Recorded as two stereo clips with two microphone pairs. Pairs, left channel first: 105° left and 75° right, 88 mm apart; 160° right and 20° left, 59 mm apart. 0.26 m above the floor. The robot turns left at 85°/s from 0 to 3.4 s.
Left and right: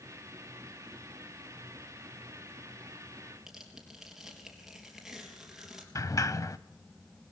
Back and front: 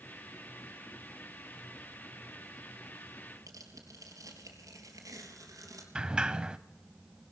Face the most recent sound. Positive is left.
turn(degrees=85)